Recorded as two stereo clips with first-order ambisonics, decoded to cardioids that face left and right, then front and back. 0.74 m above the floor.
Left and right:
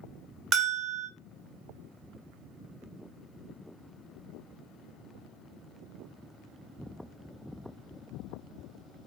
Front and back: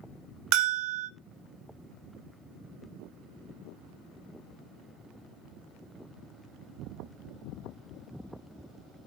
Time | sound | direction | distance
0.5 | a bell | 145° right | 0.9 m